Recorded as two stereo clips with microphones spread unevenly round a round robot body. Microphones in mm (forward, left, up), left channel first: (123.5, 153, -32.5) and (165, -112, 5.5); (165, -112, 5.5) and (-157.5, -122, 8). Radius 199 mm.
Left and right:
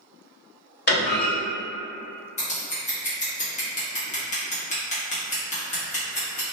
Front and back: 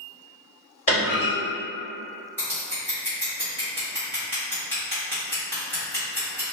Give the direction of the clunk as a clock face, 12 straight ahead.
10 o'clock.